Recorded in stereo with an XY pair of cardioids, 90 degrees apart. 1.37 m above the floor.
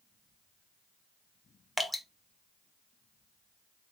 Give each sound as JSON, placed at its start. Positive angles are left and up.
{"t": 1.8, "sound": "dripping", "azimuth_deg": 0, "distance_m": 1.2}